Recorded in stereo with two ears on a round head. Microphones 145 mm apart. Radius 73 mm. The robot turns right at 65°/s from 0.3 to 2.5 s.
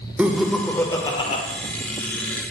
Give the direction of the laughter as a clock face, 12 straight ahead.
12 o'clock.